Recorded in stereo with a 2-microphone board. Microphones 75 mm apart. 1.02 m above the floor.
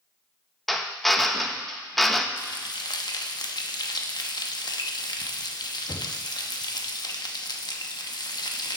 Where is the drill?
Centre (ahead or behind), 0.8 m.